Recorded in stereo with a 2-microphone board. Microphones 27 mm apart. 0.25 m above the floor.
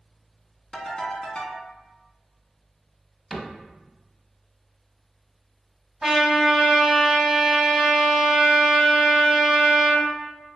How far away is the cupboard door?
About 0.6 m.